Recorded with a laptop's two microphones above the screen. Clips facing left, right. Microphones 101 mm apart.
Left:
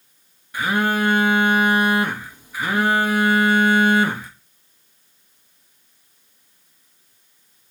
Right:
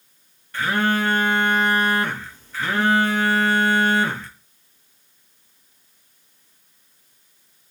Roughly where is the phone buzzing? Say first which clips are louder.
Left 1 dB; centre.